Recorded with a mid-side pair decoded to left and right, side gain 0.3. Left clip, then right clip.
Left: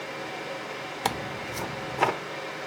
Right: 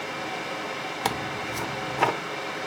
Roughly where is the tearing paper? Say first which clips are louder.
Right 1 dB; ahead.